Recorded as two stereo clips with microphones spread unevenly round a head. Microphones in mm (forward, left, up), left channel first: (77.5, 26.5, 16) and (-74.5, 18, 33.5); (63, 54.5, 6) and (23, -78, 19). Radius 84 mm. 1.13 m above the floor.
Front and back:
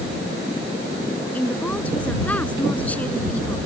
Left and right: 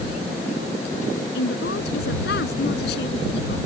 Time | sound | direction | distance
1.3 | a woman speaking | 85° left | ?